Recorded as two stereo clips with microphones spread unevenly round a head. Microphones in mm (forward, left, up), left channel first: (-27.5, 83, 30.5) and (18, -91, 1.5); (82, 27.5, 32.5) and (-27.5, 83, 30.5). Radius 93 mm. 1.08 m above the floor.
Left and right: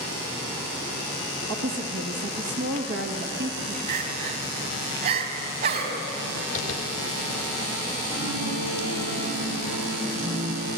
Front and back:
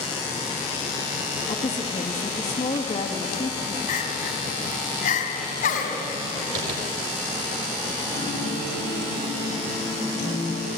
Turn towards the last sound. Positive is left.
turn(degrees=-75)